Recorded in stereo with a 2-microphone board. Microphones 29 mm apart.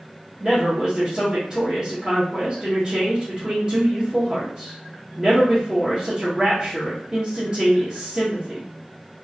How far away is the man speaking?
About 0.9 m.